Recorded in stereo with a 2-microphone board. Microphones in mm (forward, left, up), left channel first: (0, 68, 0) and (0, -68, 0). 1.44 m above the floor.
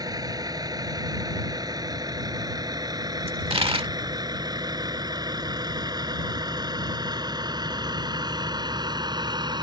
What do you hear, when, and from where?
0.0 s a vehicle: 30° right (ahead or behind); by 9.6 s 35° right (ahead or behind)
3.3 s a dropped coin: 45° right (ahead or behind)